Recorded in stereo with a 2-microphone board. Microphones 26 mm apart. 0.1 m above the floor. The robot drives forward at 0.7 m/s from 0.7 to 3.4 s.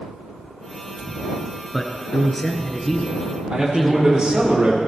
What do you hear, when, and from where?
1.7 s a man speaking: 5° left (ahead or behind), 1.3 m
3.5 s a man speaking: 35° right (ahead or behind), 4.5 m